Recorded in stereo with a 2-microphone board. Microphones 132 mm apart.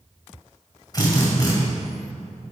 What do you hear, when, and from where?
0.9 s a drill: 30° left (ahead or behind), 1.8 m